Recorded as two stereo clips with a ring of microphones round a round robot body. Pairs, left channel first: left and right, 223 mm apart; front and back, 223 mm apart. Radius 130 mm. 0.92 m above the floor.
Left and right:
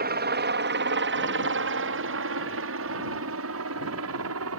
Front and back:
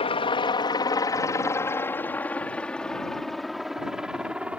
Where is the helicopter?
60° right; by 4.6 s 95° right.